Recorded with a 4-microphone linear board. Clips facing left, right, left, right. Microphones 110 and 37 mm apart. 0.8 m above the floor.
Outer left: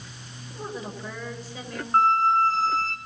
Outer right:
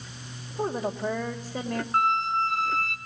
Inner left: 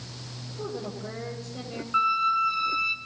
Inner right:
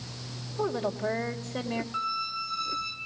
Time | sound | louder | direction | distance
0.6 | a woman speaking | outer right 7 dB, inner right 6 dB | 45° right (ahead or behind) | 3.5 m
1.9 | a squeak | outer left 6 dB, inner left 14 dB | 35° left (ahead or behind) | 3 m